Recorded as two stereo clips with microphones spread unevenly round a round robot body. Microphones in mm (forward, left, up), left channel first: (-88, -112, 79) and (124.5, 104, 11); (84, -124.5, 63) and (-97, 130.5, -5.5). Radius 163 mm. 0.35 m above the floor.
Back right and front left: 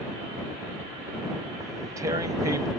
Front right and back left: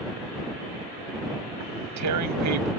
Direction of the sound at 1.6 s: 120° left.